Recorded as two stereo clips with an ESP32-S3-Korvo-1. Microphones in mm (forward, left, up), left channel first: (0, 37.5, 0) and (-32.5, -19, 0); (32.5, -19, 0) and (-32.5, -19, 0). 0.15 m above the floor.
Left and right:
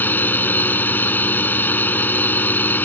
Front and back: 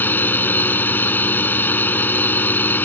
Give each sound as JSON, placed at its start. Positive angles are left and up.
{"t": 0.0, "sound": "a drone", "azimuth_deg": 30}